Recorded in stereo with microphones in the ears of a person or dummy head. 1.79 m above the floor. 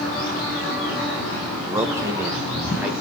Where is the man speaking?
25° right (ahead or behind), 2 m; by 2.9 s 20° right (ahead or behind), 3 m.